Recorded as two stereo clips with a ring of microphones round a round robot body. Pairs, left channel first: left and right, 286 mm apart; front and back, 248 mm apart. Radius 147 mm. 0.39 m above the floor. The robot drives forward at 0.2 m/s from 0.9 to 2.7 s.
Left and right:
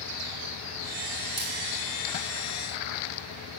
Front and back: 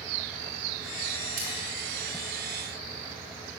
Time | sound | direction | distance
1.4 | a splash | 170° right | 6 m